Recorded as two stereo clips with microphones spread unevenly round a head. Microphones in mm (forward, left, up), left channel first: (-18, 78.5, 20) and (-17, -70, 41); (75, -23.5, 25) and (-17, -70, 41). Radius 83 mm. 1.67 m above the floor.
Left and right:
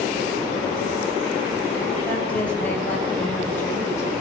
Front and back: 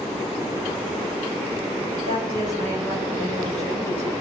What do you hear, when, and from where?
2.0 s a woman speaking: 170° left, 8 m; by 4.2 s 160° left, 8.5 m